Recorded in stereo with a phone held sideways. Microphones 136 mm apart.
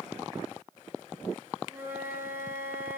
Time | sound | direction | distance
1.7 | a flute | 20° right (ahead or behind) | 3.5 m